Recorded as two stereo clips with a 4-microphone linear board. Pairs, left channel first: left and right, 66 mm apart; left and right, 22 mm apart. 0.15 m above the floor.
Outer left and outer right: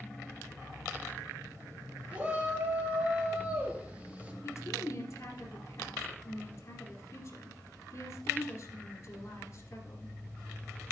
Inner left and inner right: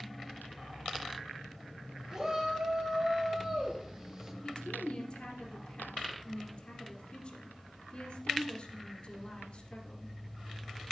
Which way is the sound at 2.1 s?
25° right (ahead or behind).